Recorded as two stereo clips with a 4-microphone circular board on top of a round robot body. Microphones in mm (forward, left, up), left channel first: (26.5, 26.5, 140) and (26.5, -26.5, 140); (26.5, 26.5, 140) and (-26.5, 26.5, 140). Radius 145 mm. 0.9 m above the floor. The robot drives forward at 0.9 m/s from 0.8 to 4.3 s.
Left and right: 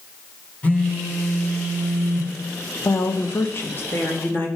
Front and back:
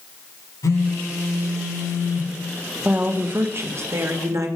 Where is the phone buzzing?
25° left, 3 m; by 2.3 s 40° left, 1.9 m.